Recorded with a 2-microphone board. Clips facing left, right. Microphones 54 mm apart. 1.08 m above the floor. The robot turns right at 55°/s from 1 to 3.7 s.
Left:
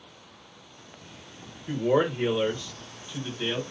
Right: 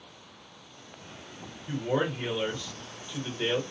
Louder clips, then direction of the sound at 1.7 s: Left 5 dB; 100° left.